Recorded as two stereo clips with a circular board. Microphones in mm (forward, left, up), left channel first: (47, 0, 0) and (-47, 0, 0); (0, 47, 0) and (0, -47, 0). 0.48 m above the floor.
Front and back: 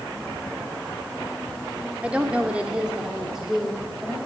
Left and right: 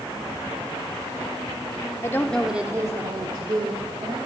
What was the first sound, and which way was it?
A woman speaking, 110° left.